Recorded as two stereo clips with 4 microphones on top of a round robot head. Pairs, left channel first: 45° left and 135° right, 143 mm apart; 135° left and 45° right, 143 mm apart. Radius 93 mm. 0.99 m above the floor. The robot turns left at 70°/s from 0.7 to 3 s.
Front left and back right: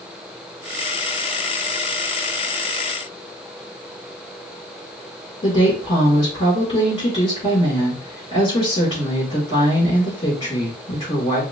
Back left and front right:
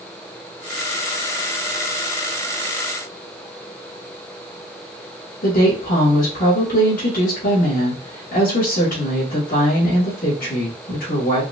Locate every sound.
5.4 s a woman speaking: 105° left, 3 m